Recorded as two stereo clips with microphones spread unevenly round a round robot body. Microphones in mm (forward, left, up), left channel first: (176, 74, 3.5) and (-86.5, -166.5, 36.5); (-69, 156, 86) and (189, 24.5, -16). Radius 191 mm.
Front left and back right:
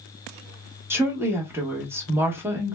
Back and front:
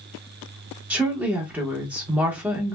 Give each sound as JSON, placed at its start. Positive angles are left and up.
{"t": 0.9, "sound": "a woman speaking", "azimuth_deg": -50, "distance_m": 0.9}